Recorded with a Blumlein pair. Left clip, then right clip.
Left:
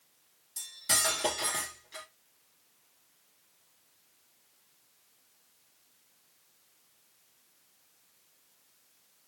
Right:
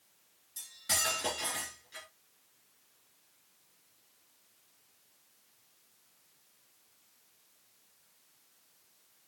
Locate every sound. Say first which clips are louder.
0.6 s cutlery clinking: left 3 dB; 20° left, 2.5 m